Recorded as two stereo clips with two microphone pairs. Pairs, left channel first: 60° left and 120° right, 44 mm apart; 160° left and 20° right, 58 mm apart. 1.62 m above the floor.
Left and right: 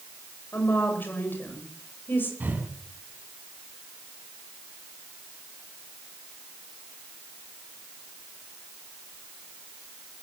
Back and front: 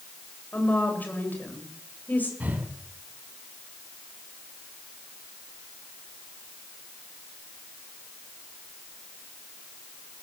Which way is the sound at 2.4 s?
75° right.